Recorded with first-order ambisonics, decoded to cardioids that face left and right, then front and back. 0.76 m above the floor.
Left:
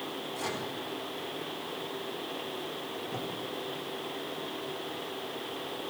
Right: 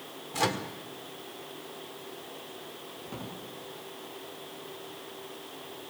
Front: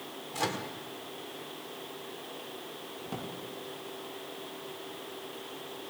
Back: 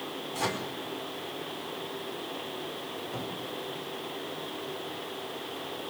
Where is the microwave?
75° right, 1.7 m.